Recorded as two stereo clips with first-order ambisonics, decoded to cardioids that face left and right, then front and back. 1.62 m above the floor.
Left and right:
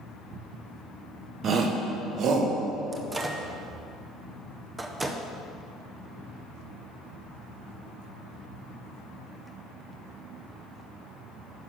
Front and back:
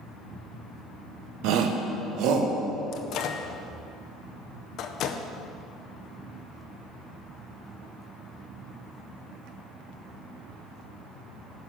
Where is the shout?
150° right, 0.9 m; by 2.5 s 140° right, 1.5 m.